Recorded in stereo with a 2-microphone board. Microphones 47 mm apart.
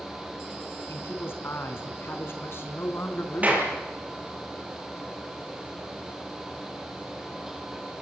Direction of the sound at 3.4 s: 35° right (ahead or behind).